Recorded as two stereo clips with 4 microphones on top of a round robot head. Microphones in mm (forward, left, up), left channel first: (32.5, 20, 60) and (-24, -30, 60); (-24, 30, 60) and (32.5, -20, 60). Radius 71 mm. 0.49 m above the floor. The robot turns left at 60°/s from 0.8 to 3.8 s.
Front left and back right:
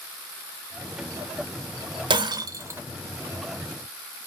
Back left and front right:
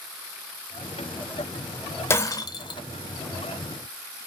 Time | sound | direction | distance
2.1 | breaking glass | 160° right | 0.6 m